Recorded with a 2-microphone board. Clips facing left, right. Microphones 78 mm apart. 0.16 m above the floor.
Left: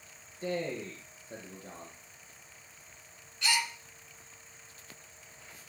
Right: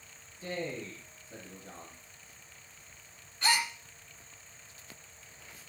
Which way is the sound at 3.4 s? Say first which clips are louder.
Right 2 dB; 40° right (ahead or behind).